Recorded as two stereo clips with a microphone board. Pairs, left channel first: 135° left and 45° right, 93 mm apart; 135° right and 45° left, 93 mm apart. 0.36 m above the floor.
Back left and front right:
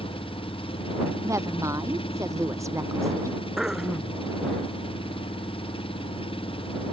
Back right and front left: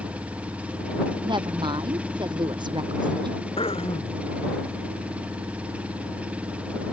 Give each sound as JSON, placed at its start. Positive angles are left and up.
{"t": 0.0, "sound": "an engine running", "azimuth_deg": 120}
{"t": 1.2, "sound": "a woman speaking", "azimuth_deg": 10}
{"t": 3.6, "sound": "throat clearing", "azimuth_deg": -130}